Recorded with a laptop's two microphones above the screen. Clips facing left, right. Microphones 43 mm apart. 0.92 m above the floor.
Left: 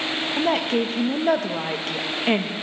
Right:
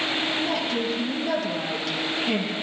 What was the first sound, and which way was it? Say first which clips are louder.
A woman speaking: left 4 dB; 45° left (ahead or behind).